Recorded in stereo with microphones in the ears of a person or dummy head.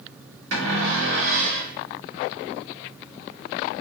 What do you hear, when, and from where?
0.5 s a cupboard door: 65° right (ahead or behind), 1.3 m